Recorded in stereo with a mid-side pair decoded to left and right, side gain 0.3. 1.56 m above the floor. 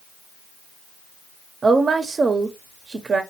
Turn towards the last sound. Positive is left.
turn(degrees=-55)